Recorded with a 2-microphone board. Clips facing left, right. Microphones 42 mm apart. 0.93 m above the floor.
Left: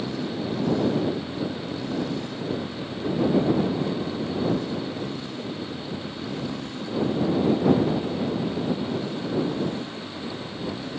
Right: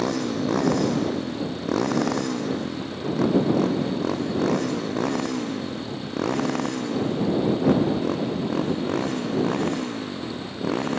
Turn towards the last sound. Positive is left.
turn(degrees=-65)  # may be behind; listen again after turning